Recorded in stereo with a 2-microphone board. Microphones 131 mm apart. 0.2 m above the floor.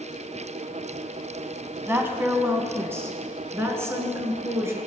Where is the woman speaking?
15° right (ahead or behind), 1.7 m; by 4.8 s 20° right (ahead or behind), 3.5 m.